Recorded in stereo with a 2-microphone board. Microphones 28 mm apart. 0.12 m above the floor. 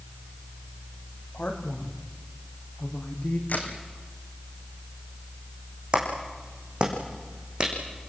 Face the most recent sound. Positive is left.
turn(degrees=-35)  # may be behind; listen again after turning